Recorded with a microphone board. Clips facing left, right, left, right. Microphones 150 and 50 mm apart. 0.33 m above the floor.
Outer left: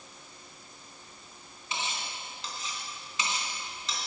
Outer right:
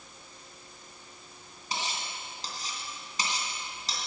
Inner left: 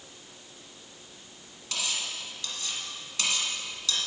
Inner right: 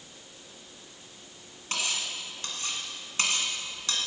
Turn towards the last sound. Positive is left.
turn(degrees=-40)  # may be behind; listen again after turning